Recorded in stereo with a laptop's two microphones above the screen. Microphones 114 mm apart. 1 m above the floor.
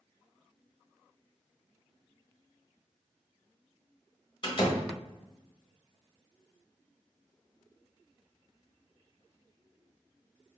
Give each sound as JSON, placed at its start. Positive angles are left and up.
{"t": 4.4, "sound": "a door slam", "side_deg": 50, "distance_m": 1.0}